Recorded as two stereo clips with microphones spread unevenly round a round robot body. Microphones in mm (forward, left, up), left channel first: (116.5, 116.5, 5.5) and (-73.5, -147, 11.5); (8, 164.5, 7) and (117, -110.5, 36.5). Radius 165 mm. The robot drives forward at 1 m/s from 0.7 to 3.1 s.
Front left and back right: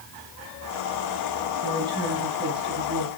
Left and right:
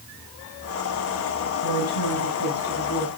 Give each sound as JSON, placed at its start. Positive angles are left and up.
{"t": 1.6, "sound": "a woman speaking", "azimuth_deg": 155, "distance_m": 4.5}